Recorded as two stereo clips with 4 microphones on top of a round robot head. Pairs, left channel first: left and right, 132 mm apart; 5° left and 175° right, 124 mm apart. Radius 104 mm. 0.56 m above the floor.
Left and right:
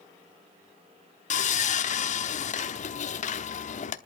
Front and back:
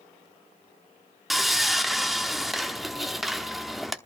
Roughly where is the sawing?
Left.